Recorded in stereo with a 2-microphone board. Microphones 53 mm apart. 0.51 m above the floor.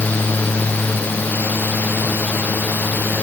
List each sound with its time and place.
Only background noise.